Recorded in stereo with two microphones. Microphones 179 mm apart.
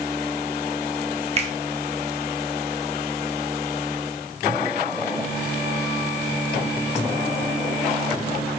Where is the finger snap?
35° right (ahead or behind), 0.8 m.